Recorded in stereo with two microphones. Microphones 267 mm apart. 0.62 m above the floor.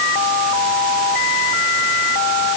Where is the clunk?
No clunk in this recording.